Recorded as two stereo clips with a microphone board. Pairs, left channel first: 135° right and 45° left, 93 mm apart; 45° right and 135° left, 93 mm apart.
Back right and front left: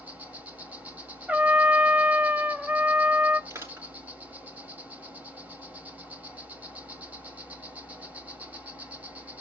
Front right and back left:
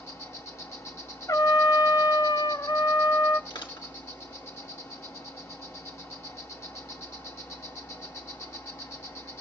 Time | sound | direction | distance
0.0 | an insect | 15° right | 2 m
1.3 | a trumpet | 25° right | 0.6 m
3.5 | crushing | 15° right | 5.5 m